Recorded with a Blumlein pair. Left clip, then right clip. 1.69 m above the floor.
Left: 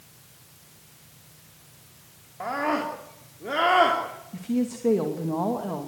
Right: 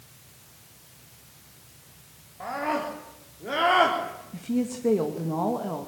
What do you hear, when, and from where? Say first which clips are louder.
2.4 s a scream: left 2 dB; 20° left, 4 m; by 4.0 s straight ahead, 4 m
4.3 s a woman speaking: left 1 dB; 5° left, 2.5 m